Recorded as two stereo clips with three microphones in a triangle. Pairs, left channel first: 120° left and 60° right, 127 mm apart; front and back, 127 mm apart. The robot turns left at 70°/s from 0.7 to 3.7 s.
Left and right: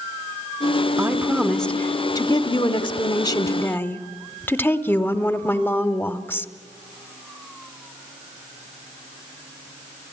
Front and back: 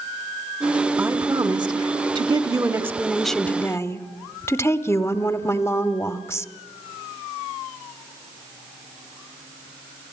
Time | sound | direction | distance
1.0 | a woman speaking | 115° right | 0.9 m